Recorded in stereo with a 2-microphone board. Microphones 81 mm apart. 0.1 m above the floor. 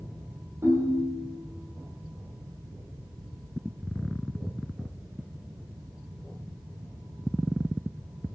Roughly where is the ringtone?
Right.